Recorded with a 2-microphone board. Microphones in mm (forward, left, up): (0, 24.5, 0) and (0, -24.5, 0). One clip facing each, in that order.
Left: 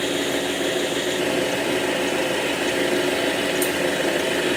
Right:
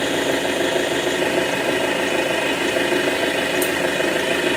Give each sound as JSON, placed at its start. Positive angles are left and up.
{"t": 0.0, "sound": "an engine running", "side_deg": -80, "distance_m": 1.0}